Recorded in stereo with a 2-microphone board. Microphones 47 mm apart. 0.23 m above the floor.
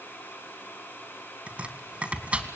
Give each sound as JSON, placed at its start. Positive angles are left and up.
{"t": 1.5, "sound": "chopping", "side_deg": -25, "distance_m": 2.0}